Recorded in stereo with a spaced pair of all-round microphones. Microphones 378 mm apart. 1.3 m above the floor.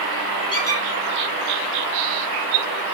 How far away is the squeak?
About 3 m.